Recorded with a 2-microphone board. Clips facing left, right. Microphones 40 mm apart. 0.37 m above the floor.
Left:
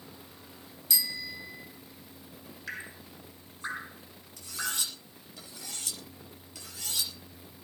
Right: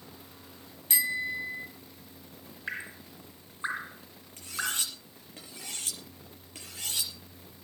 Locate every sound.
0.9 s a bicycle bell: 40° right (ahead or behind), 2 m
2.7 s dripping: 25° right (ahead or behind), 1.7 m
4.4 s cutlery clinking: 45° right (ahead or behind), 5.5 m